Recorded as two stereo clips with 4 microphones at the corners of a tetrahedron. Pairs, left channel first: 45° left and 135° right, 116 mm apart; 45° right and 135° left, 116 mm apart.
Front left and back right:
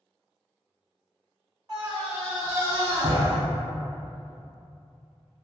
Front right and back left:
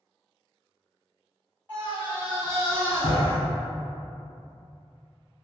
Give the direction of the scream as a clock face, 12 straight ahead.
4 o'clock.